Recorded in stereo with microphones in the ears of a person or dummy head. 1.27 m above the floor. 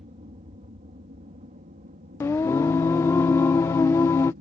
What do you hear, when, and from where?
0.0 s an aircraft: 30° right (ahead or behind); by 4.4 s 45° right (ahead or behind)
2.2 s singing: 10° left (ahead or behind)